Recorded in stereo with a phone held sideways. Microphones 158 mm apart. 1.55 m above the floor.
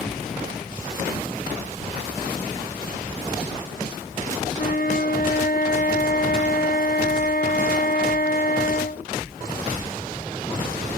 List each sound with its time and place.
4.6 s a flute: 70° left (ahead or behind)